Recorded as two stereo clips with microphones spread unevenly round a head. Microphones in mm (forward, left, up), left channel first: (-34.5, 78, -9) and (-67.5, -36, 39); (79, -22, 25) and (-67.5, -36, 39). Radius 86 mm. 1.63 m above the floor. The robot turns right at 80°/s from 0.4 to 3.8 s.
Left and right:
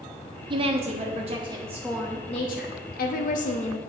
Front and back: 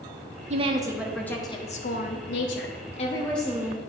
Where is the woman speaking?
135° right, 0.9 m; by 3.8 s 125° left, 0.9 m.